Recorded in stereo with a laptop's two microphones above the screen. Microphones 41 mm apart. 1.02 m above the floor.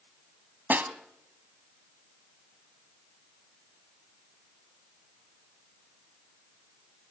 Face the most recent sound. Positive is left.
turn(degrees=-50)  # may be behind; listen again after turning